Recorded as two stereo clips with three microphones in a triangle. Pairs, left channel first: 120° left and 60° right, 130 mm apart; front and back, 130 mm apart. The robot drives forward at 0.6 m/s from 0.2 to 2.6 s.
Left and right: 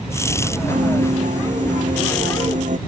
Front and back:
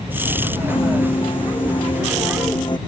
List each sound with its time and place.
0.7 s a piano: 45° right; by 2.8 s 55° right